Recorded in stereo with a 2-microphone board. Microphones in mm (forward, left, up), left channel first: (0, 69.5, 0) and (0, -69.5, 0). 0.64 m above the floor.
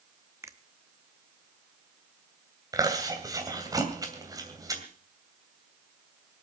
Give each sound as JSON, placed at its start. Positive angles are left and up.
{"t": 0.4, "sound": "a finger snap", "side_deg": -20, "distance_m": 1.0}
{"t": 2.7, "sound": "chewing", "side_deg": -25, "distance_m": 2.5}